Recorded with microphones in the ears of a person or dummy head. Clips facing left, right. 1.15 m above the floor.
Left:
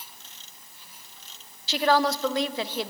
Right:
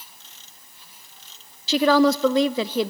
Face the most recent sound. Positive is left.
turn(degrees=-70)  # may be behind; listen again after turning